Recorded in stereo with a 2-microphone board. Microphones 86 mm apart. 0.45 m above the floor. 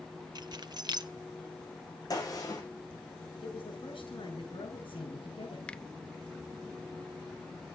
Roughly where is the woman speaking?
Left.